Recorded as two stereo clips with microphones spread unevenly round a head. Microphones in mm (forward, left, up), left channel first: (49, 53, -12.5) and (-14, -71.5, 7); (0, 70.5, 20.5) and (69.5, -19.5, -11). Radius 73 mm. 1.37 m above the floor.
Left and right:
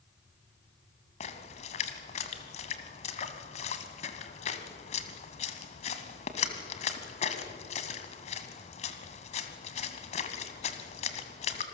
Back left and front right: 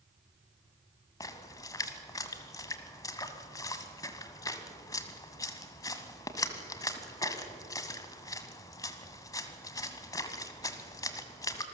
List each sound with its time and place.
1.2 s a splash: 100° left, 1.7 m